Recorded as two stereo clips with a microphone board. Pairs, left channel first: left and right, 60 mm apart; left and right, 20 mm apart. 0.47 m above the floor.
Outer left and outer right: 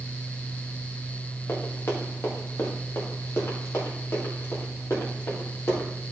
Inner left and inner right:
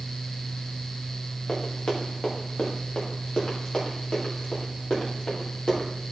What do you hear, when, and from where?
1.5 s running footsteps: 50° left (ahead or behind), 5 m; by 5.9 s 45° left (ahead or behind), 8.5 m